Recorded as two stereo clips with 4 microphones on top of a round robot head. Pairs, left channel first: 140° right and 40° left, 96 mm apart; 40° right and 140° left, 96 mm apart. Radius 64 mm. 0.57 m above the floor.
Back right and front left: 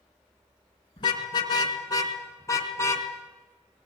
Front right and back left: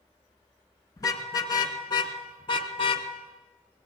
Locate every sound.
1.0 s a car horn: 95° right, 3.5 m; by 3.1 s 75° right, 2.5 m